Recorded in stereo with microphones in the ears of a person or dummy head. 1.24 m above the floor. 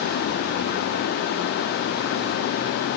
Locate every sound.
Only background noise.